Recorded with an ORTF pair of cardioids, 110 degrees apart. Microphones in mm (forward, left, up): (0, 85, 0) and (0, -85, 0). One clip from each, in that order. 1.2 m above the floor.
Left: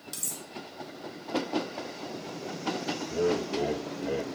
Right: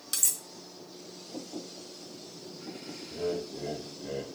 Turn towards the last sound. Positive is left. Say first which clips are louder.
# left 5 dB
turn(degrees=50)